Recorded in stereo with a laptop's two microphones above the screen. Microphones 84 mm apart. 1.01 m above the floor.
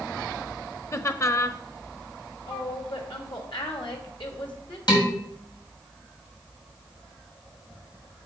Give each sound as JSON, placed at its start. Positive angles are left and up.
{"t": 0.9, "sound": "laughter", "side_deg": 35, "distance_m": 0.8}
{"t": 2.4, "sound": "a woman speaking", "side_deg": 70, "distance_m": 2.0}
{"t": 4.9, "sound": "dishes clattering", "side_deg": 55, "distance_m": 3.5}